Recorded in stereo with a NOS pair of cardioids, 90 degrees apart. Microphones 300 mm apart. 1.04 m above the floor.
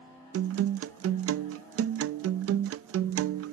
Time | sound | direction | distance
0.3 | a guitar | 50° right | ?